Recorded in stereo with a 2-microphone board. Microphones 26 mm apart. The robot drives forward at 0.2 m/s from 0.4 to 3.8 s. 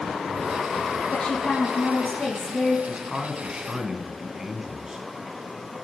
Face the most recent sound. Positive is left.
turn(degrees=-20)  # may be behind; listen again after turning